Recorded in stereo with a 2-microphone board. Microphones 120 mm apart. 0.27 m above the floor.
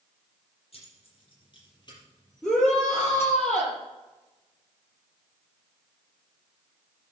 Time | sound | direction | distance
0.7 | keys jangling | 55° left (ahead or behind) | 6 m
2.4 | a shout | centre (ahead or behind) | 6 m